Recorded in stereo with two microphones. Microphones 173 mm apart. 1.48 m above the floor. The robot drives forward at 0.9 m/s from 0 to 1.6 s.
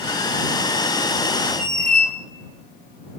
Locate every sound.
1.6 s a squeak: 50° left (ahead or behind), 1.1 m; by 2.1 s 55° left (ahead or behind), 1.1 m